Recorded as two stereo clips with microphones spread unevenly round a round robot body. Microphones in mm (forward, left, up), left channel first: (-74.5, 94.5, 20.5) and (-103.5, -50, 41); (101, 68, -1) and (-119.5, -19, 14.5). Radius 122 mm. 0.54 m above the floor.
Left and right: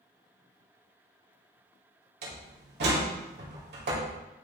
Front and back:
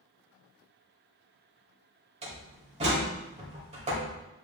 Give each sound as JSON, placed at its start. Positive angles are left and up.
{"t": 2.2, "sound": "a door slam", "azimuth_deg": -90, "distance_m": 2.0}